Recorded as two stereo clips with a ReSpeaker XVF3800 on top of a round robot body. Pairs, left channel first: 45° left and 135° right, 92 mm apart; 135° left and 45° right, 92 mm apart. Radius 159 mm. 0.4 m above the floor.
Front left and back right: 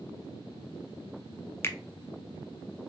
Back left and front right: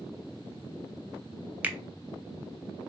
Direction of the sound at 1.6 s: 15° left.